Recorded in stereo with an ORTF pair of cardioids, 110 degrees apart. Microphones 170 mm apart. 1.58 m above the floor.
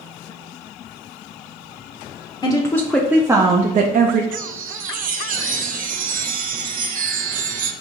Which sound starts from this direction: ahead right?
A chime, at 4.3 s.